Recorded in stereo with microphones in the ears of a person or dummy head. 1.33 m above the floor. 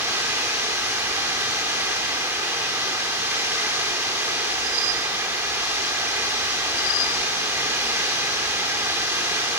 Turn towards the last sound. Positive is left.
turn(degrees=-15)  # may be behind; listen again after turning